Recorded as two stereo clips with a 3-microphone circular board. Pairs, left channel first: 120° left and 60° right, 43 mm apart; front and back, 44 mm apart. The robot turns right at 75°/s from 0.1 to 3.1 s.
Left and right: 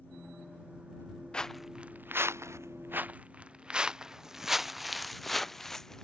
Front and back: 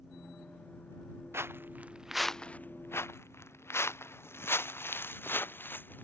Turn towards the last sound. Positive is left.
turn(degrees=40)